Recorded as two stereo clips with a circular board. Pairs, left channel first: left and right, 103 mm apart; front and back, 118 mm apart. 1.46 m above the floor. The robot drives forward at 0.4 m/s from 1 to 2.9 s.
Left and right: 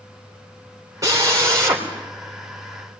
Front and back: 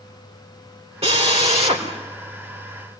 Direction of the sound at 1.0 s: 150° right.